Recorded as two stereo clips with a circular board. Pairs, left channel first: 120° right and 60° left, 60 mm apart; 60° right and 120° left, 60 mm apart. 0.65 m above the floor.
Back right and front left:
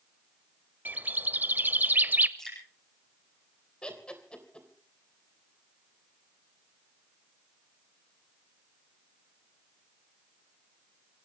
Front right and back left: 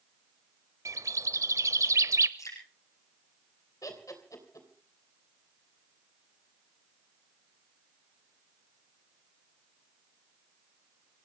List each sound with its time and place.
0.8 s a bird: 115° left, 0.6 m
2.4 s dripping: 35° right, 5.5 m
3.8 s laughter: 45° right, 3 m